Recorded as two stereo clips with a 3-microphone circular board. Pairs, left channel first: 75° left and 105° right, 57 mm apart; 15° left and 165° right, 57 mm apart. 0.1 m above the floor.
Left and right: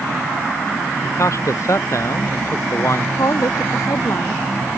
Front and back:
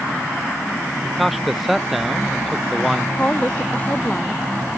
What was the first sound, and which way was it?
A man speaking, 110° left.